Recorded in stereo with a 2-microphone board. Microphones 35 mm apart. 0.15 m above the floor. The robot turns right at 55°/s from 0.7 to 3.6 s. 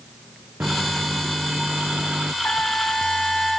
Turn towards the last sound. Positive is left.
turn(degrees=180)